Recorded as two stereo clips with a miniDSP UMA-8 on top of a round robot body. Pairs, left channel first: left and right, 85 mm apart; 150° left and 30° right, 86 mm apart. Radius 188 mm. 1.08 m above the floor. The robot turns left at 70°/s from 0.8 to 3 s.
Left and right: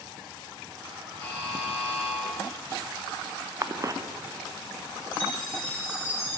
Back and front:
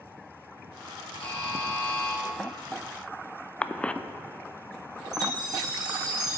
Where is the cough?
135° right, 0.5 m.